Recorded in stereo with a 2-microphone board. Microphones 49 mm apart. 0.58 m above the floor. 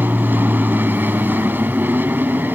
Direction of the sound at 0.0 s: 40° right (ahead or behind).